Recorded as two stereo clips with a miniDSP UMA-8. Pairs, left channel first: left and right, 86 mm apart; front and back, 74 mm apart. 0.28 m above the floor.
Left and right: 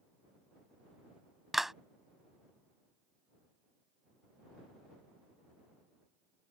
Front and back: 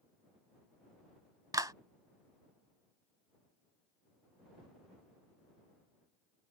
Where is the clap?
175° right.